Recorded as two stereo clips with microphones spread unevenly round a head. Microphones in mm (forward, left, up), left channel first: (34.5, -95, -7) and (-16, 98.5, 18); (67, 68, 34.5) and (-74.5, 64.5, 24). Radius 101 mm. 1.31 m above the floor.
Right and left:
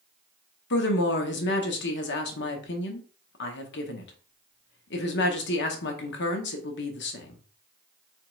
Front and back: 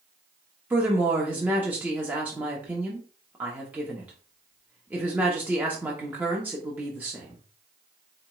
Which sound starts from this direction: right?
A woman speaking, at 0.7 s.